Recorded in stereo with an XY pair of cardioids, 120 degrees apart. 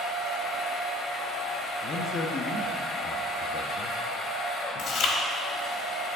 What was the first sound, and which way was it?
A machine running, 60° left.